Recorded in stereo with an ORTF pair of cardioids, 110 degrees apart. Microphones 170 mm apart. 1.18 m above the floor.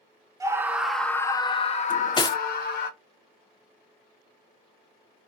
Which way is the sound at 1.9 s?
25° left.